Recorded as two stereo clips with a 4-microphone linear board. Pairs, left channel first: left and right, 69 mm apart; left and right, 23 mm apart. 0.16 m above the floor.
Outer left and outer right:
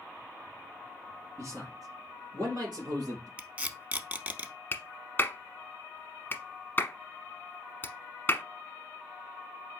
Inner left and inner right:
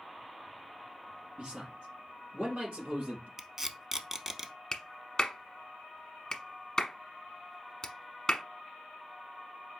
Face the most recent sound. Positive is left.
turn(degrees=25)  # may be behind; listen again after turning